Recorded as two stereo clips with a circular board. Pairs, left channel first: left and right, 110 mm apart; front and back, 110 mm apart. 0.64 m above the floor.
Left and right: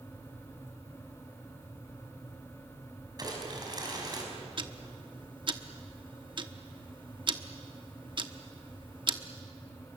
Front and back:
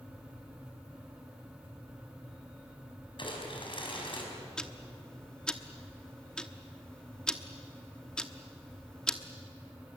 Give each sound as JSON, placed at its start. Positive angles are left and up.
{"t": 3.2, "sound": "crumpling", "azimuth_deg": -40, "distance_m": 5.0}
{"t": 4.6, "sound": "ticking", "azimuth_deg": -80, "distance_m": 1.0}